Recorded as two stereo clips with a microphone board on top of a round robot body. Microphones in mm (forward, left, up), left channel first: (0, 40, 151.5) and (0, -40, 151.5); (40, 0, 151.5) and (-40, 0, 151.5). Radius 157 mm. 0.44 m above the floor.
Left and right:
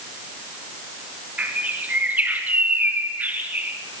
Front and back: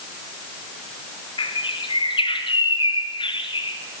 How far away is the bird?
About 2.5 m.